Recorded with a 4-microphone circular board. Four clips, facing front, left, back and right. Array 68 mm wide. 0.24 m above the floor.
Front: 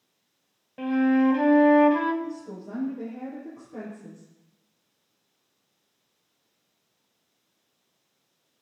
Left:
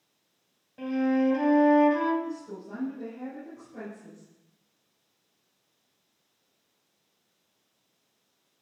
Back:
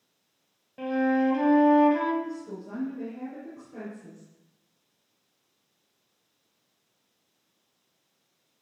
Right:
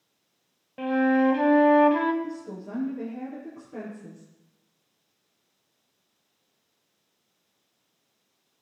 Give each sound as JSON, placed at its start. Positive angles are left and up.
{"t": 0.8, "sound": "a flute", "azimuth_deg": -60, "distance_m": 1.3}
{"t": 2.2, "sound": "a woman speaking", "azimuth_deg": -80, "distance_m": 5.5}